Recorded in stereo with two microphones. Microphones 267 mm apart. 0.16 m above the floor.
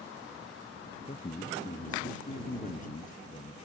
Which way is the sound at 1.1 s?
30° left (ahead or behind).